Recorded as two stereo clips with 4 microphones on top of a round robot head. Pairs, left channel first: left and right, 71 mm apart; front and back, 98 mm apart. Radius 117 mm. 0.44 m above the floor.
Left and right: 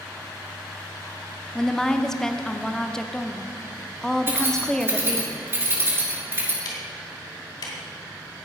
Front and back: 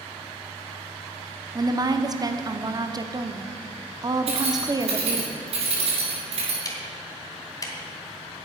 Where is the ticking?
55° left, 2.5 m.